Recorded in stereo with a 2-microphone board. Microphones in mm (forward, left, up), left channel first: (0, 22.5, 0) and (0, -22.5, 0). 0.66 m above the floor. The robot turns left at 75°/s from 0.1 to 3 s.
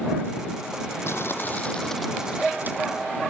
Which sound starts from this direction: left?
Crumpling, at 1.1 s.